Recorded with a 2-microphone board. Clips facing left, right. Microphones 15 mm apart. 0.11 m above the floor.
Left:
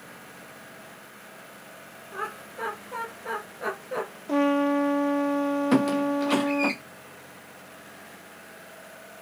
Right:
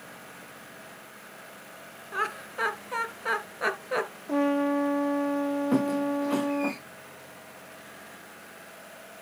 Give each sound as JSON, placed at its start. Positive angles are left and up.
{"t": 2.1, "sound": "laughter", "side_deg": -45, "distance_m": 1.9}
{"t": 4.3, "sound": "a trumpet", "side_deg": 20, "distance_m": 0.9}
{"t": 5.7, "sound": "a squeak", "side_deg": 90, "distance_m": 1.5}